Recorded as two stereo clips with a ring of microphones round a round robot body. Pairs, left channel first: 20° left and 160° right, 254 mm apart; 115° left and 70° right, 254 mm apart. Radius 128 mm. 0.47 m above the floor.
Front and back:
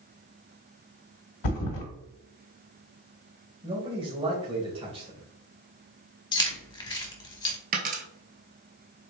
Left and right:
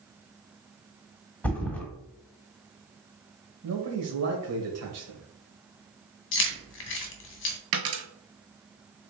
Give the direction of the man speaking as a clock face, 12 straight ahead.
3 o'clock.